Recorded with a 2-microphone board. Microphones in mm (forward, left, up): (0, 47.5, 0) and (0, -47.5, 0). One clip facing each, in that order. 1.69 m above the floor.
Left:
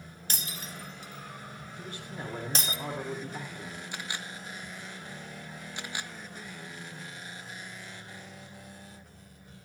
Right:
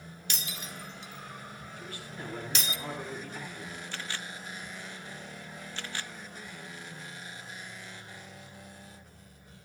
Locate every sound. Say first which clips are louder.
0.3 s breaking glass: left 1 dB; 40° left (ahead or behind), 2.5 m
1.8 s a man speaking: left 3 dB; 40° left (ahead or behind), 4.5 m
3.9 s a camera shutter: even; 15° left (ahead or behind), 1.0 m